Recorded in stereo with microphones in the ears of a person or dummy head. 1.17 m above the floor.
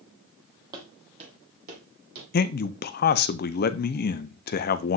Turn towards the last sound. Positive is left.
turn(degrees=45)  # may be behind; listen again after turning